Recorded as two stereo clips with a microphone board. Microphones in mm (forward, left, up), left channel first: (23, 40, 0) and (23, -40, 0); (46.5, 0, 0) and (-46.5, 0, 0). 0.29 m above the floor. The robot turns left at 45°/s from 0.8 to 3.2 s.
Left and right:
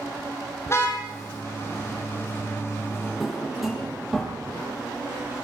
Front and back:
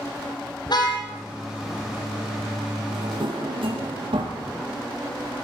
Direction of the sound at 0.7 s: 35° left.